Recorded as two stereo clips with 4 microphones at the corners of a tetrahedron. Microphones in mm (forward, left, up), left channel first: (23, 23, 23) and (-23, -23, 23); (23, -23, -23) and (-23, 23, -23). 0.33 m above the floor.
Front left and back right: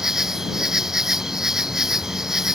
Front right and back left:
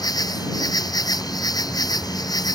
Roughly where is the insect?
Ahead right.